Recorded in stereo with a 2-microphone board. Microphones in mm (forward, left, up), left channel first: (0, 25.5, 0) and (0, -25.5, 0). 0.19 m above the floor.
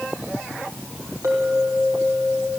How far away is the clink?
About 4 m.